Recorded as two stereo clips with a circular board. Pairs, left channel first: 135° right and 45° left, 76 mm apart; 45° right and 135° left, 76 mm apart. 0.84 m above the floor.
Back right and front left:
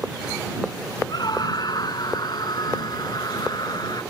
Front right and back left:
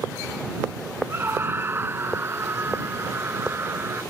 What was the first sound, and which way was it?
A scream, 160° right.